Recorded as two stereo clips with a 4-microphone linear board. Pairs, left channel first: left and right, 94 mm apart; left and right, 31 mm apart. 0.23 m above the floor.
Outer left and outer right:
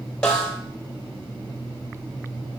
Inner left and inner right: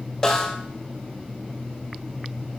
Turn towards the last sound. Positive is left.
turn(degrees=10)  # may be behind; listen again after turning